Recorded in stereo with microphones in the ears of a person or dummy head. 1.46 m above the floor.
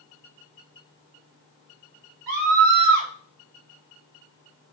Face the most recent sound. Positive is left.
turn(degrees=-55)  # may be behind; listen again after turning